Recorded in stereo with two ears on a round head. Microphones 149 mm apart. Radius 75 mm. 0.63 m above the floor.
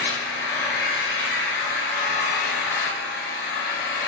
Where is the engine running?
65° left (ahead or behind), 2 m.